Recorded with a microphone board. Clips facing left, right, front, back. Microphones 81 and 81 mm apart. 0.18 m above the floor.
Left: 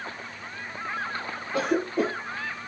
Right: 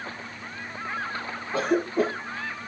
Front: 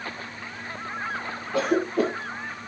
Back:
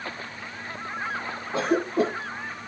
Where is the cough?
130° right, 2.5 m.